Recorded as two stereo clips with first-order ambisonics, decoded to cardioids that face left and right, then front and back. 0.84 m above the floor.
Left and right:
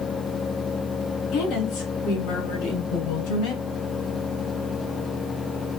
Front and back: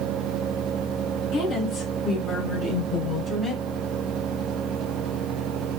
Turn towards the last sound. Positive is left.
turn(degrees=75)